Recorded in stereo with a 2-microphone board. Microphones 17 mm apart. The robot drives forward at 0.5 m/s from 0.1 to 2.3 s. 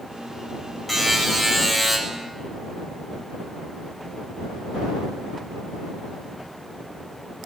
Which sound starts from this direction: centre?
A buzzer, at 0.9 s.